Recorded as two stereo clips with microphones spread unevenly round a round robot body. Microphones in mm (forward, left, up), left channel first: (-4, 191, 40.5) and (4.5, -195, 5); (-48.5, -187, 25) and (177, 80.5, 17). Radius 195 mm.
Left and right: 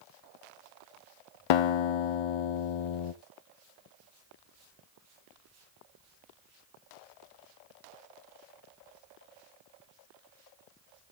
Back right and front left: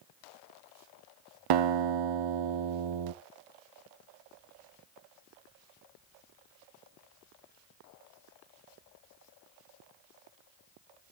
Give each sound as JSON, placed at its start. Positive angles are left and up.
{"t": 1.5, "sound": "a guitar", "azimuth_deg": 75, "distance_m": 0.7}